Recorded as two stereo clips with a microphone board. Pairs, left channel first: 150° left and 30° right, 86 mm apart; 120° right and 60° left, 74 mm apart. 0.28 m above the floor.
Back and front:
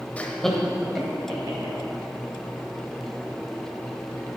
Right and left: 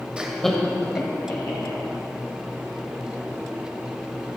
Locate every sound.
0.2 s laughter: 110° left, 1.0 m; by 1.8 s 85° right, 1.9 m